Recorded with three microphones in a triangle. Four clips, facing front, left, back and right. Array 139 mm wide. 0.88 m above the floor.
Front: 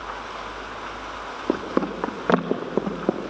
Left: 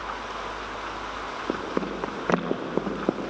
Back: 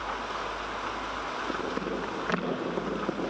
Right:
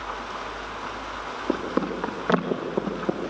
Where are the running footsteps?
Straight ahead, 3 m; by 3.2 s 30° left, 2.5 m.